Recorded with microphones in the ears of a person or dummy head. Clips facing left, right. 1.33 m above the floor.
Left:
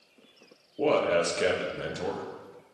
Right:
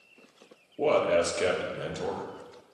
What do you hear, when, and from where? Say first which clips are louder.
0.8 s a man speaking: even; centre (ahead or behind), 0.9 m